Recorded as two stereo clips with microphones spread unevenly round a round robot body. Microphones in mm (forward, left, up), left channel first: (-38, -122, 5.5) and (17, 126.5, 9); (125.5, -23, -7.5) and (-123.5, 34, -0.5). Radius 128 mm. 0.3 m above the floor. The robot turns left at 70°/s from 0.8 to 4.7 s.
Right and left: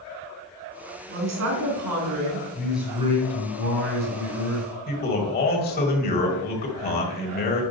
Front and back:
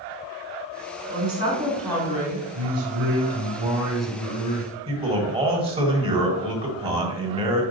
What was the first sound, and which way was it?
A woman speaking, 130° left.